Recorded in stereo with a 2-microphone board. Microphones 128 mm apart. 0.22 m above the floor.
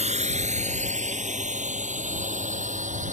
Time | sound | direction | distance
0.0 | a drone | 60° right (ahead or behind) | ?